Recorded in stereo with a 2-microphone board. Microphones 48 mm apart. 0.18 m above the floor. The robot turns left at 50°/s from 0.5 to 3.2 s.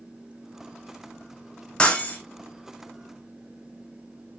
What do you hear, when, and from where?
1.8 s breaking glass: 20° left (ahead or behind), 2.0 m; by 2.2 s 40° left (ahead or behind), 2.0 m